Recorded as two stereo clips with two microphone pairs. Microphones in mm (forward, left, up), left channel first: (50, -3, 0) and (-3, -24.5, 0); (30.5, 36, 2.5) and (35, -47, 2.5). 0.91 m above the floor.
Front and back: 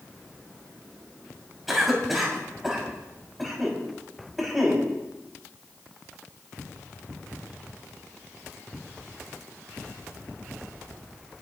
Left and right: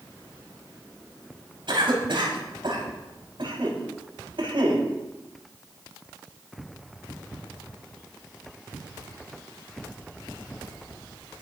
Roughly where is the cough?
Right.